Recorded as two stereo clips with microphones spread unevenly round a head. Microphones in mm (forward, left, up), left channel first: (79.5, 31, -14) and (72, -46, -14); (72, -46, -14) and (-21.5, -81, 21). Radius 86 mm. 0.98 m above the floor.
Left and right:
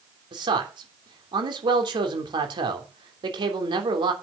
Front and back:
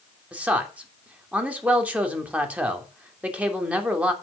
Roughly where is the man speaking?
Right.